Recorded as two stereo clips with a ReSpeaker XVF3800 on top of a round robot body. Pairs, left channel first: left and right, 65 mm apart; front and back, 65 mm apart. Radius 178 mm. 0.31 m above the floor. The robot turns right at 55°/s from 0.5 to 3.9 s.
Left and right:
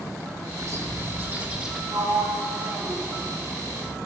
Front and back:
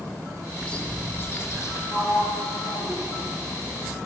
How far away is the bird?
About 2 m.